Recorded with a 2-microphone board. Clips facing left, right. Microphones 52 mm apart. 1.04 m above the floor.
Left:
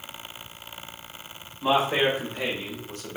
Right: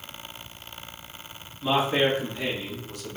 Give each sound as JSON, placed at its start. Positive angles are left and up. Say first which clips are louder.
{"t": 1.6, "sound": "a man speaking", "louder": "left 1 dB", "side_deg": 65, "distance_m": 2.0}